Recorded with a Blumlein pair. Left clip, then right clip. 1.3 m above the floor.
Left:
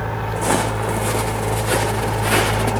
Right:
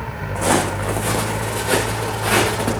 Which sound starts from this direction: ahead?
Footsteps, at 0.3 s.